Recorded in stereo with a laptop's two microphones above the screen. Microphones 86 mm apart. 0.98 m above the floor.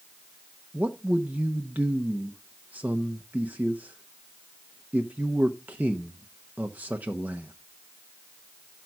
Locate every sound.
0.7 s a man speaking: 20° right (ahead or behind), 0.8 m